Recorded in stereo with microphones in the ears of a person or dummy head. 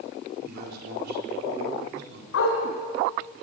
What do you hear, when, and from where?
0.4 s a man speaking: 60° right (ahead or behind), 4.5 m
2.3 s a dog barking: 75° left (ahead or behind), 4.5 m